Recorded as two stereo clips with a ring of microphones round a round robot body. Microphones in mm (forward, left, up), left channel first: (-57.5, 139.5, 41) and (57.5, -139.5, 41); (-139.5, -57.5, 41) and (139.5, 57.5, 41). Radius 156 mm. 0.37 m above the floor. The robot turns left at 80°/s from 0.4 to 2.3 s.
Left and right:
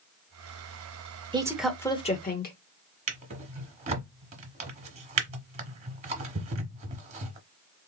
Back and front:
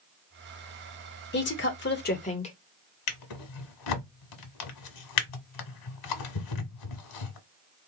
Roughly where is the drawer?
Behind right.